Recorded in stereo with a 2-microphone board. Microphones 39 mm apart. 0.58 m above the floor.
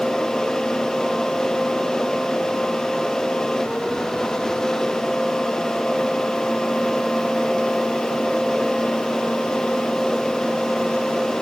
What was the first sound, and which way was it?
Only background noise.